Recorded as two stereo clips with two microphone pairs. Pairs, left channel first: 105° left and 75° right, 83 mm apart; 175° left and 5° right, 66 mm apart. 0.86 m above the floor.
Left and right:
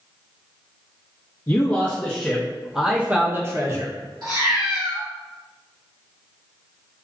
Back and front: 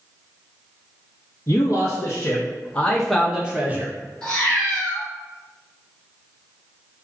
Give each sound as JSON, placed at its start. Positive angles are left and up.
{"t": 1.5, "sound": "a man speaking", "azimuth_deg": 170, "distance_m": 1.1}
{"t": 4.2, "sound": "a cat meowing", "azimuth_deg": -105, "distance_m": 1.9}